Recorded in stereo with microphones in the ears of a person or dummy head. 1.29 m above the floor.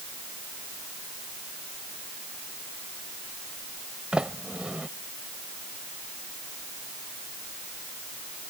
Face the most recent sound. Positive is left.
turn(degrees=0)  # may be behind; listen again after turning